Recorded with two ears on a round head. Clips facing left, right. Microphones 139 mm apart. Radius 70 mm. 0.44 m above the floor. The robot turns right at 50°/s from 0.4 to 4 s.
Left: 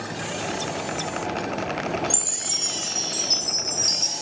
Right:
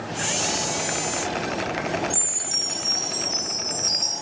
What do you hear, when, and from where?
2.1 s a chime: 60° left, 2 m; by 4.1 s 155° left, 2 m